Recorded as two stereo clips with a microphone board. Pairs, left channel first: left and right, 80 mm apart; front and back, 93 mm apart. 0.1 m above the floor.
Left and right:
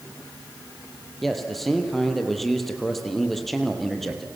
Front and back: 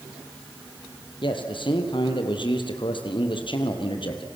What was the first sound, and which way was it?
A man speaking, 5° left.